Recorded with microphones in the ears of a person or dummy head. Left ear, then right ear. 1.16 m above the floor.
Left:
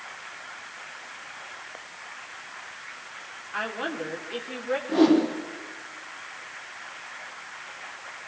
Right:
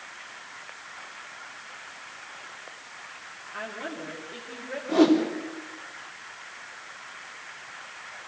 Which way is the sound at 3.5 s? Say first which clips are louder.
Left 6 dB; 45° left (ahead or behind).